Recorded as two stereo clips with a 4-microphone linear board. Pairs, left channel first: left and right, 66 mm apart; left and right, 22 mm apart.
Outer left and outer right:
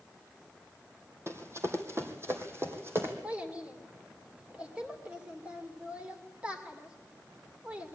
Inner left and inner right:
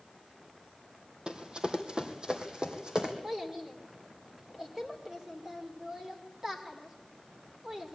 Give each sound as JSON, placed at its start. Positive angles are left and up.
{"t": 1.3, "sound": "running footsteps", "side_deg": -45, "distance_m": 2.0}
{"t": 3.2, "sound": "a child speaking", "side_deg": -20, "distance_m": 2.5}